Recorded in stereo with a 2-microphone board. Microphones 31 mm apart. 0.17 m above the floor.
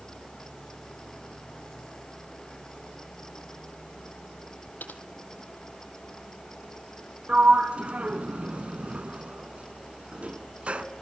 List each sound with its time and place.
4.8 s typing on a keyboard: 80° left, 1.9 m
7.3 s a sliding door: 45° right (ahead or behind), 1.4 m